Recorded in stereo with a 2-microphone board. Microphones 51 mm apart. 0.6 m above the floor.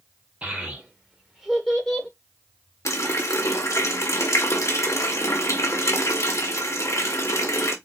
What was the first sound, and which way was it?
A child speaking, 30° right (ahead or behind).